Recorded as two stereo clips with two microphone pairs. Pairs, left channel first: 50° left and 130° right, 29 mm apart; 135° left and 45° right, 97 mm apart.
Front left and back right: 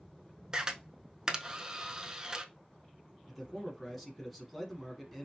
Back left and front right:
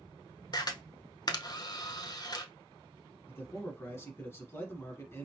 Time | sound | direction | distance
0.5 | a camera shutter | 170° left | 0.6 m
3.3 | a man speaking | 135° left | 1.1 m